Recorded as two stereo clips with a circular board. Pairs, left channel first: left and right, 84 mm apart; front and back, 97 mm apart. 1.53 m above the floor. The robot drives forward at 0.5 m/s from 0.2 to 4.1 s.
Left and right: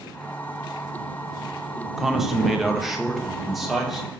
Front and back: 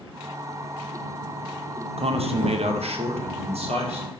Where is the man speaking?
175° right, 0.7 m; by 4.1 s straight behind, 1.7 m.